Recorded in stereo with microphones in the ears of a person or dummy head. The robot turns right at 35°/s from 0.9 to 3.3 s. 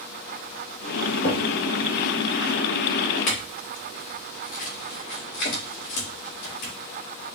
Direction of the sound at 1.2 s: 55° left (ahead or behind).